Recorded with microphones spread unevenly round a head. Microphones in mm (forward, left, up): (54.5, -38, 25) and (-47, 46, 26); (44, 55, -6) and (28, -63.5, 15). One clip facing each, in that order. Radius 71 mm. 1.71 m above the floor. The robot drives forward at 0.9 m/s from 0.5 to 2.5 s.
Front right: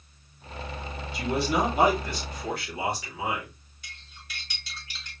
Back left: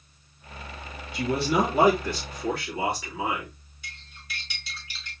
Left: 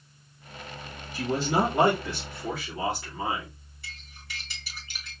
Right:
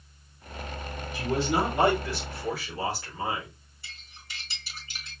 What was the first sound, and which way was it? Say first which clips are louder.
A man speaking: back left 2 dB, left 1 dB; 145° left.